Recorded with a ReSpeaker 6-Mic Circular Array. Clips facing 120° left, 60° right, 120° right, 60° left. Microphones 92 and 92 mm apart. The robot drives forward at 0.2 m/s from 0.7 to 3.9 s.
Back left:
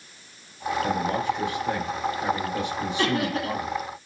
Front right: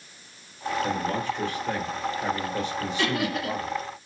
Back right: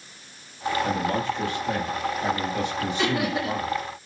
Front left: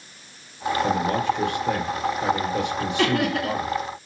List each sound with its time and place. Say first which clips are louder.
0.8 s a man speaking: back left 4 dB, front left 5 dB; 45° left, 5.5 m; by 3.8 s 50° left, 5 m
3.0 s laughter: back left 2 dB, front left 3 dB; 70° left, 7 m